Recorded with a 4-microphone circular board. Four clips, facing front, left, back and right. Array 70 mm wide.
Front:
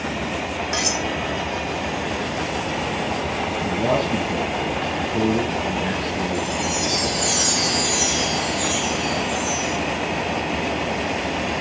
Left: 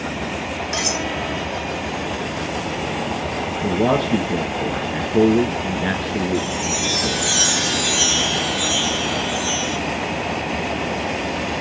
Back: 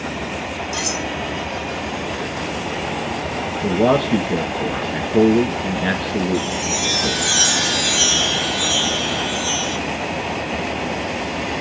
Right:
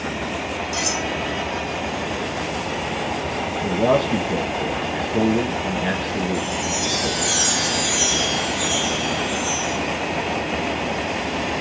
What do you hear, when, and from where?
0.7 s cutlery clinking: 35° left, 5.5 m
3.6 s a man speaking: 165° left, 1.6 m
6.3 s a chime: 165° left, 2.5 m